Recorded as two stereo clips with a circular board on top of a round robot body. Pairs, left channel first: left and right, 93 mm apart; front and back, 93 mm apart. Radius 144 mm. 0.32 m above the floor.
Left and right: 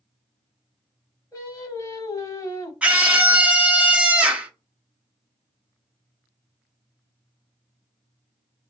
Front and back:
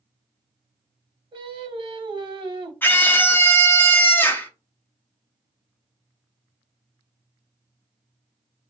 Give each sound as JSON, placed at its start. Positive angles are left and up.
{"t": 1.3, "sound": "singing", "azimuth_deg": 145, "distance_m": 1.0}
{"t": 2.8, "sound": "a scream", "azimuth_deg": -30, "distance_m": 1.0}